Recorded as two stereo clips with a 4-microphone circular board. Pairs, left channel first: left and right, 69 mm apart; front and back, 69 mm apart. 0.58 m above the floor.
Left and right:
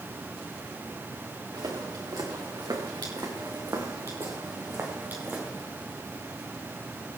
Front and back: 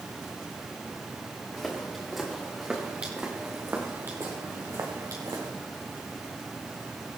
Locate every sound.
1.5 s footsteps: 85° right, 4.5 m; by 5.5 s 155° right, 4 m